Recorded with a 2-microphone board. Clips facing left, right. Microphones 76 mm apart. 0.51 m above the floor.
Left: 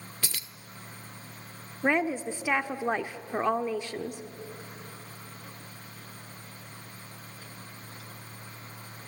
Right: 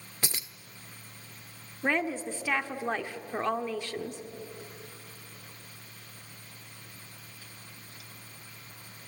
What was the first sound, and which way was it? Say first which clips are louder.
Keys jangling: right 3 dB; 20° right (ahead or behind).